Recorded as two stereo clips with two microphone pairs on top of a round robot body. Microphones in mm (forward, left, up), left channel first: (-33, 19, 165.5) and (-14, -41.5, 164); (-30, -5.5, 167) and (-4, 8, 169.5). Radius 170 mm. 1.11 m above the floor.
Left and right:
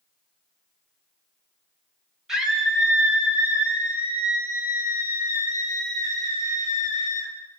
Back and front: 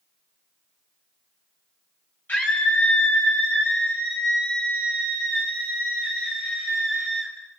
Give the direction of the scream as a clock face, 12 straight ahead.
5 o'clock.